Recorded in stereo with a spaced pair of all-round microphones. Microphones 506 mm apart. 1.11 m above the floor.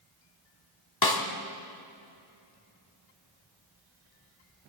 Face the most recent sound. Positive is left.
turn(degrees=45)  # may be behind; listen again after turning